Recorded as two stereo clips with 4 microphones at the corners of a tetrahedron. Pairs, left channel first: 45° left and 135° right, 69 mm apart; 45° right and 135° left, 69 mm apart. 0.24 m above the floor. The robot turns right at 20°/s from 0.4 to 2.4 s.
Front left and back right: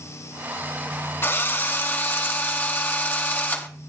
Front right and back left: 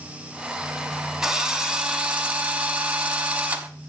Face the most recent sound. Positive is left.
turn(degrees=85)